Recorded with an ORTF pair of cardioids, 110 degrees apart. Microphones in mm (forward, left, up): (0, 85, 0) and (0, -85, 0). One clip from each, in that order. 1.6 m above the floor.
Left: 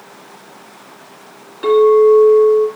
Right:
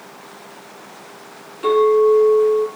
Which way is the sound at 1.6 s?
20° left.